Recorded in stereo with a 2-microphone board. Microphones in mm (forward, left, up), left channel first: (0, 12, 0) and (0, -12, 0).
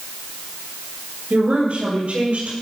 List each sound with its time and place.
1.3 s a woman speaking: 60° right (ahead or behind), 5 m; by 2.5 s 65° right (ahead or behind), 5.5 m